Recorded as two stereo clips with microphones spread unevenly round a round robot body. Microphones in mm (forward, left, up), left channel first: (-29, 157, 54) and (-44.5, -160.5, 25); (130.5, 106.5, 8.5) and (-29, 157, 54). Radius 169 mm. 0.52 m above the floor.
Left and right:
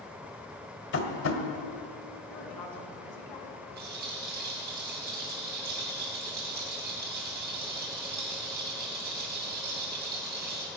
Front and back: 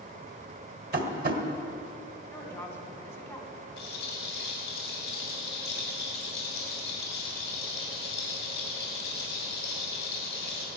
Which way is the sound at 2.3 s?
60° left.